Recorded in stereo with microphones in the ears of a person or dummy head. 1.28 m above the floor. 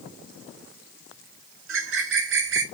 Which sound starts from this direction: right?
A bird, at 1.7 s.